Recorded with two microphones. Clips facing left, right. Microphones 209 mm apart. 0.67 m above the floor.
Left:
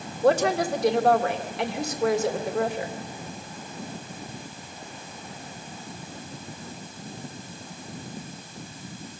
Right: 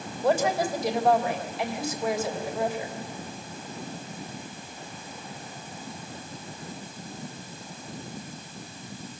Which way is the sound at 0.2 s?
70° left (ahead or behind).